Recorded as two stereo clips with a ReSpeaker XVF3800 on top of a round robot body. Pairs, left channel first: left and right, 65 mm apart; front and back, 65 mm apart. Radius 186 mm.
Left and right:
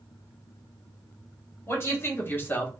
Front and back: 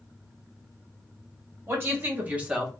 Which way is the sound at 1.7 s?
130° left.